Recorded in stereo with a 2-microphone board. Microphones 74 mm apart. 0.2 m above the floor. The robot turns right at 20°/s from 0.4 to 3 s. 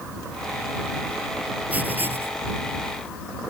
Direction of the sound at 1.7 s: 20° right (ahead or behind).